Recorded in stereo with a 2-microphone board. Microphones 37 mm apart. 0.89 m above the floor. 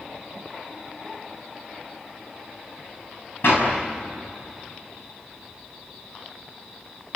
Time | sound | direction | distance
3.4 | a clap | 85° left | 6.5 m